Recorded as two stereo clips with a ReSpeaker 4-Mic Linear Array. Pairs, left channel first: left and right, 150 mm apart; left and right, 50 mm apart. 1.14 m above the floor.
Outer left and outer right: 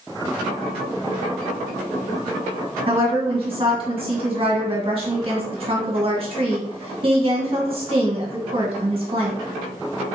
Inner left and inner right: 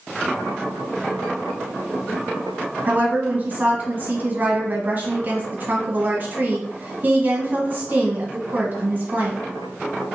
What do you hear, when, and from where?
2.9 s a woman speaking: 40° right (ahead or behind), 1.4 m